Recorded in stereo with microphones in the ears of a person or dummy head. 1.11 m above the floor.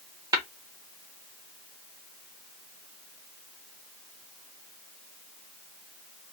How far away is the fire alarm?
I don't hear a fire alarm.